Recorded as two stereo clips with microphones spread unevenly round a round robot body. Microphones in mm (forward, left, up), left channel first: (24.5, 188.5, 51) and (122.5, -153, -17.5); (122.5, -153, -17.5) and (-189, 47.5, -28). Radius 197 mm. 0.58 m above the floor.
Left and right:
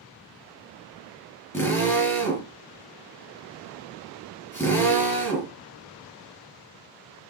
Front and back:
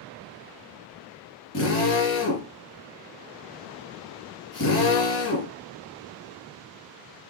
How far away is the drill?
About 5.5 m.